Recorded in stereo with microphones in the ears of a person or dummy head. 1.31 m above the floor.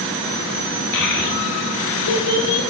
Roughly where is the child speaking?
Left.